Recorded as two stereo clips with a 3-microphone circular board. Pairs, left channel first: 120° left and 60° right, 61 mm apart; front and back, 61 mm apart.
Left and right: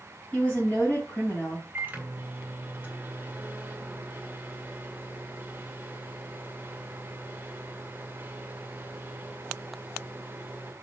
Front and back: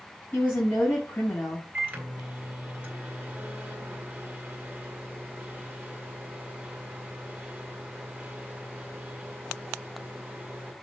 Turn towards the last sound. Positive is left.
turn(degrees=-120)